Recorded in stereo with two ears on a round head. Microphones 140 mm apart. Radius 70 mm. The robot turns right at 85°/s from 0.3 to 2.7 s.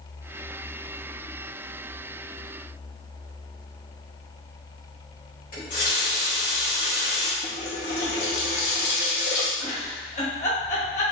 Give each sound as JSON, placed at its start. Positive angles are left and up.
{"t": 5.5, "sound": "a running tap", "side_deg": 55, "distance_m": 1.8}
{"t": 7.4, "sound": "a running tap", "side_deg": 80, "distance_m": 1.2}
{"t": 9.6, "sound": "a giggle", "side_deg": 45, "distance_m": 1.2}